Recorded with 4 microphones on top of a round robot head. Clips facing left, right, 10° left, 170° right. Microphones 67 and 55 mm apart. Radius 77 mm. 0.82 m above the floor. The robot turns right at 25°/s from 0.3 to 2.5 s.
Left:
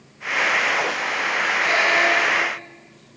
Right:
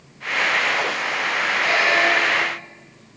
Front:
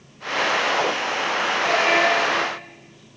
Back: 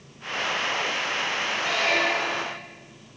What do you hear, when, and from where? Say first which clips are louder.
1.6 s a squeak: right 1 dB, front 6 dB; 35° right, 7.5 m; by 2.6 s 15° right, 7.5 m